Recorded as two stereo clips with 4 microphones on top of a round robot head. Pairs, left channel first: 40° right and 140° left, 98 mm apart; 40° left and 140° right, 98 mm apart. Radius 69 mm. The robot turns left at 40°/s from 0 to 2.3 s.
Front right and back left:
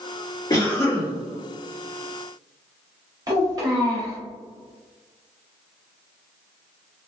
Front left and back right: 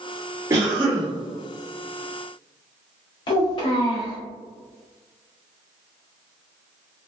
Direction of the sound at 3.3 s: 85° left.